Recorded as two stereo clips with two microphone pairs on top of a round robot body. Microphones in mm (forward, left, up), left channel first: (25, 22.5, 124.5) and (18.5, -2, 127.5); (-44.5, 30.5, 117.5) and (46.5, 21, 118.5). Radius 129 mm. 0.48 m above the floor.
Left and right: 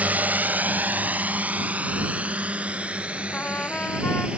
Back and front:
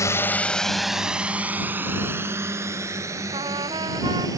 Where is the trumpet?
30° left.